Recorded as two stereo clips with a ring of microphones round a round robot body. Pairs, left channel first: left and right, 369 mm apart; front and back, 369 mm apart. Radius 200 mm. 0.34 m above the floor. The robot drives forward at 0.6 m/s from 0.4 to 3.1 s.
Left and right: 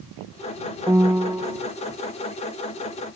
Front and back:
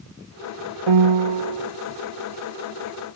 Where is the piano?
175° right.